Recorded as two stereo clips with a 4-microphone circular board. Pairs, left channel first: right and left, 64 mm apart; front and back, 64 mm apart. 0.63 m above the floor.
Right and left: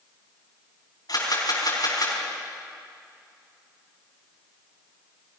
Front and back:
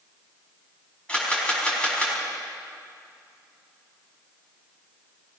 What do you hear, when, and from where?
1.1 s a camera shutter: 75° right, 5.5 m